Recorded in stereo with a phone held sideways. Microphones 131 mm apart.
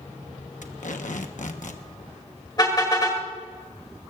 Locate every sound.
0.6 s tape being pulled: 75° left (ahead or behind), 1.1 m
2.6 s a car horn: 30° left (ahead or behind), 3 m